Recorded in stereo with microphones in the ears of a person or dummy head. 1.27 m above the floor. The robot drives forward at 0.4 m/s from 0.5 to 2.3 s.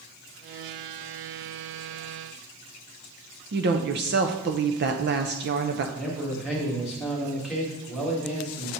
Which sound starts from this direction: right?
A woman speaking, at 3.5 s.